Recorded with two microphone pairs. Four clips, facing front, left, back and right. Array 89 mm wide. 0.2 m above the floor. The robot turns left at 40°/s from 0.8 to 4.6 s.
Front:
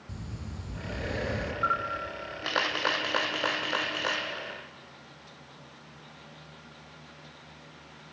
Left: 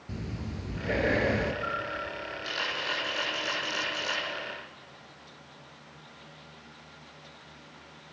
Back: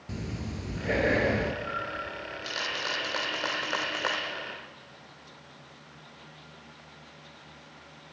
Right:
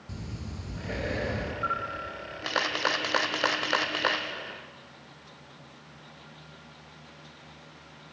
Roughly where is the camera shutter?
Ahead.